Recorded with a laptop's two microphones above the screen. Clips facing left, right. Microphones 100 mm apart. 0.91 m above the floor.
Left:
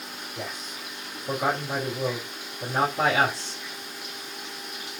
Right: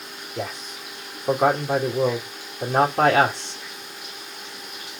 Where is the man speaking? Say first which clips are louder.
Right 7 dB; 60° right (ahead or behind), 2 m.